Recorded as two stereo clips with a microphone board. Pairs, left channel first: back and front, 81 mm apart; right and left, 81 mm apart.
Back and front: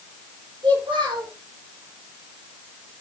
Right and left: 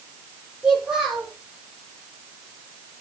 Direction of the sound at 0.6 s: 15° left.